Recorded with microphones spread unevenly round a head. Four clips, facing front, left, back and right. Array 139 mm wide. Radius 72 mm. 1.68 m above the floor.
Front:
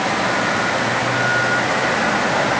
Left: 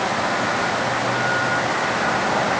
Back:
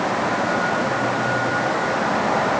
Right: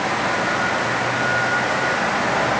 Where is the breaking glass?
No breaking glass in this recording.